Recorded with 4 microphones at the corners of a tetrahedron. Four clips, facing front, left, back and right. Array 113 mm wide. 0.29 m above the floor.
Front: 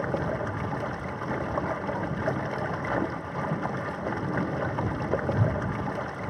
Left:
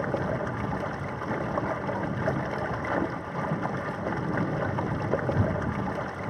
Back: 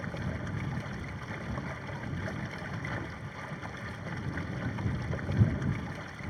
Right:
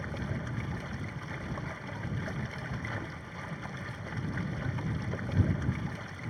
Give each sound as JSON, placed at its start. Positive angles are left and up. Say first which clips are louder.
{"t": 0.0, "sound": "running water", "louder": "left 10 dB, front 10 dB", "azimuth_deg": 45}